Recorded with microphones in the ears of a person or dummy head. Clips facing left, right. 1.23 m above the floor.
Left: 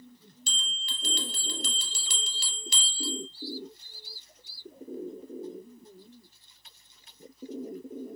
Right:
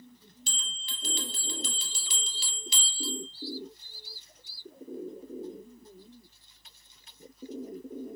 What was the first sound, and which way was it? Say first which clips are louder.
A bell: left 4 dB; 45° left (ahead or behind).